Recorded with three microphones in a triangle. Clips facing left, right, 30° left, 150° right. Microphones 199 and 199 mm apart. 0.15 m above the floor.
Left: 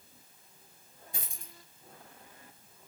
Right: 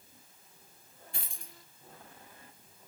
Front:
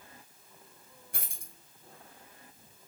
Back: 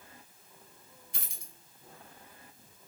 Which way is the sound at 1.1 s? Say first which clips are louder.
Left 1 dB, front 1 dB; 25° left.